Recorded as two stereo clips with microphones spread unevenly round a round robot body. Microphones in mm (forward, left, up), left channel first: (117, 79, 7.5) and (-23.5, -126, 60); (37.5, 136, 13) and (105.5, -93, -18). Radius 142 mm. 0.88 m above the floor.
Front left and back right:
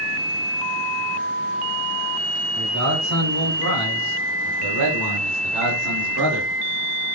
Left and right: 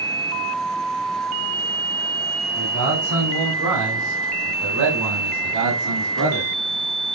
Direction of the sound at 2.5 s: 85° right.